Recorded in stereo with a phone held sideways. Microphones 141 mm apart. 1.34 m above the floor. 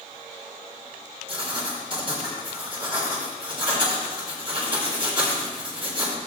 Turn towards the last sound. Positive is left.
turn(degrees=-40)  # may be behind; listen again after turning